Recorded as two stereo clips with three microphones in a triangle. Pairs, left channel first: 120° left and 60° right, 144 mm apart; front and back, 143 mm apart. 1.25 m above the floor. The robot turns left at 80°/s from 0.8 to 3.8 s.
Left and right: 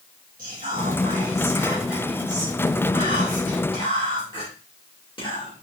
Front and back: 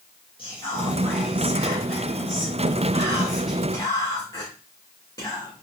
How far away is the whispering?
About 1.9 m.